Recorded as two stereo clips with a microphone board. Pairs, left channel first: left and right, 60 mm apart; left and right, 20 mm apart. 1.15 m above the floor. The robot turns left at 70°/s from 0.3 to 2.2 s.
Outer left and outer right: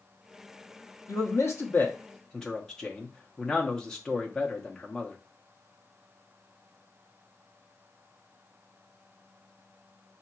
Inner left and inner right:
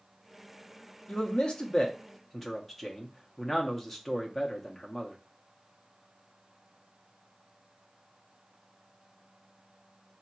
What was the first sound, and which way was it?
A man speaking, 90° left.